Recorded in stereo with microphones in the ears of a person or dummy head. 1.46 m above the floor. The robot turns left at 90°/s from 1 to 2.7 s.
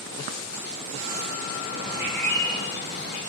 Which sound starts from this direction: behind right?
A bird, at 1.7 s.